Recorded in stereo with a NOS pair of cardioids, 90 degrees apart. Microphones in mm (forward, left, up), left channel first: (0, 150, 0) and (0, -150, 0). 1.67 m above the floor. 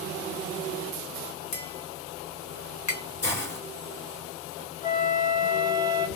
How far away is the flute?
About 1.0 m.